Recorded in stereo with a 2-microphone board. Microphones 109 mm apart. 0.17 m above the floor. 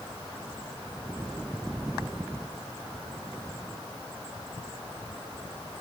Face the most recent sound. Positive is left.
No sound to turn to.